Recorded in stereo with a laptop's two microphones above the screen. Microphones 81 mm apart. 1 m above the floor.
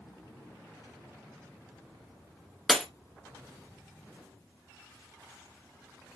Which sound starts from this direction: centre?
Breaking glass, at 2.7 s.